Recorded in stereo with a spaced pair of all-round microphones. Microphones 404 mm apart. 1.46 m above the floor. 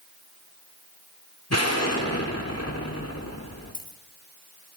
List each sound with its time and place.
1.5 s an explosion: 35° left (ahead or behind), 2.5 m
3.7 s a dropped coin: 50° left (ahead or behind), 2.5 m